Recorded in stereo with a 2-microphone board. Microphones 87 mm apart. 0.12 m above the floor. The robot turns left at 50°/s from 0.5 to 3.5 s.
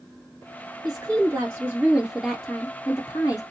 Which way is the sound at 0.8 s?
110° right.